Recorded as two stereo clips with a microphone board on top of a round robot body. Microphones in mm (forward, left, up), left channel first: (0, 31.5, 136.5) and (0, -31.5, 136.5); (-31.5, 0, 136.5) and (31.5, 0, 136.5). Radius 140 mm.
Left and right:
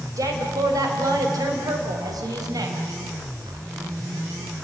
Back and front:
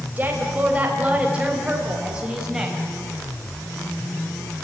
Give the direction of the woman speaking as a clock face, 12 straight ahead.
2 o'clock.